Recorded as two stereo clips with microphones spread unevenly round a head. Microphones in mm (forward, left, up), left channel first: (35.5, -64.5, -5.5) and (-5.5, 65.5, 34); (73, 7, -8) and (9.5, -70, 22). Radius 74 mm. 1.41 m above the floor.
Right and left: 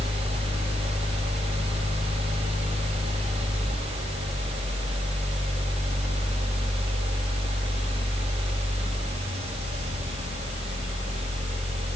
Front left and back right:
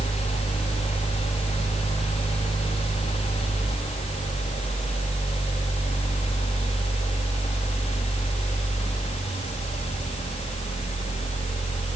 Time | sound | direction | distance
0.0 | a fan | 60° left | 2.5 m